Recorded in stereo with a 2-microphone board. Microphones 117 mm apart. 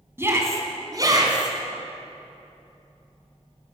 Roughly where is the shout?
Right.